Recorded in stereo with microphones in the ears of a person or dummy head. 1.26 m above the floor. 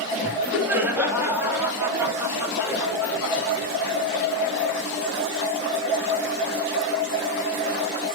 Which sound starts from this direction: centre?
Laughter, at 0.2 s.